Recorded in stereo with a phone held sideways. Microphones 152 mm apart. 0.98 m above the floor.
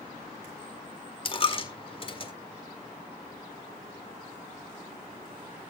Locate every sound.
1.2 s a dropped coin: 35° left (ahead or behind), 1.5 m